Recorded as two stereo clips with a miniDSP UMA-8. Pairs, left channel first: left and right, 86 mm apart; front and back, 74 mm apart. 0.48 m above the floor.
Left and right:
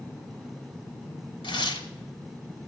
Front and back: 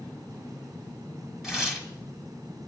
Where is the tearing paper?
100° left, 1.3 m.